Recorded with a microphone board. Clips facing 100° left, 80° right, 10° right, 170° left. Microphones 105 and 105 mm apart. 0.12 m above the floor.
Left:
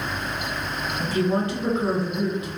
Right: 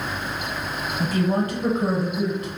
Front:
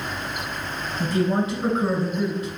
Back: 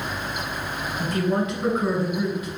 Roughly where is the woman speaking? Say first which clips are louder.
Right 1 dB, front 2 dB; right.